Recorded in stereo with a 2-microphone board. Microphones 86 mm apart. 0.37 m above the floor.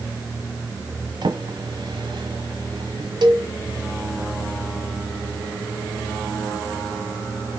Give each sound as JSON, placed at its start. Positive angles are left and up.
{"t": 1.2, "sound": "a drawer", "side_deg": -65, "distance_m": 1.5}
{"t": 3.2, "sound": "a cowbell", "side_deg": -60, "distance_m": 0.9}